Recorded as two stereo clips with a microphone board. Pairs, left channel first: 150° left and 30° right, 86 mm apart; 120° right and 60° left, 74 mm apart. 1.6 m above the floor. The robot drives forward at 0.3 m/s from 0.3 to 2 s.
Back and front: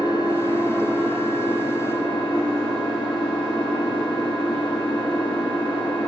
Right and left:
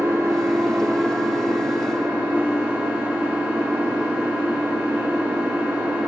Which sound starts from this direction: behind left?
An engine running, at 0.0 s.